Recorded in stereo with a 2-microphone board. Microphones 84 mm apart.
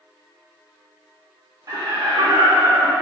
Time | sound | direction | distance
1.7 | laughter | 50° right (ahead or behind) | 1.0 m